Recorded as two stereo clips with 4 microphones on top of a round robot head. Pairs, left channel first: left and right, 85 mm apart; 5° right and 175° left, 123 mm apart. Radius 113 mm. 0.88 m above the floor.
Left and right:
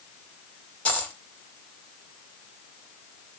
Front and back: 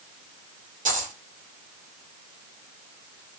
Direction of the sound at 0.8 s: 165° left.